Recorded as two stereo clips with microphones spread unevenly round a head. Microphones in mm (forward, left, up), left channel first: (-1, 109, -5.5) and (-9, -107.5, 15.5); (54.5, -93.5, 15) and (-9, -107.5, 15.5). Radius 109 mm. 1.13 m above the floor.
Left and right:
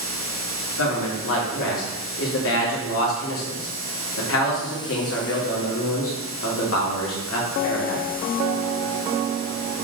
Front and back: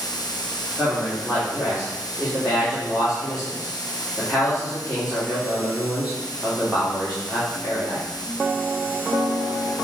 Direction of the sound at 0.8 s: 110° left.